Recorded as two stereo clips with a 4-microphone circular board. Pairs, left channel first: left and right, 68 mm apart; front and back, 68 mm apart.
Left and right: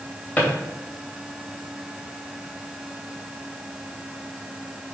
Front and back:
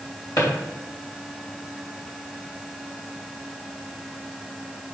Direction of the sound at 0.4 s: 20° left.